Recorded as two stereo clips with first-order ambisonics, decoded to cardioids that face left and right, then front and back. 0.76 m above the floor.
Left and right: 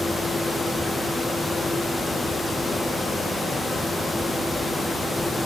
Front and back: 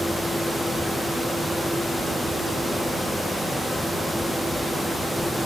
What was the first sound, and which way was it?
Only background noise.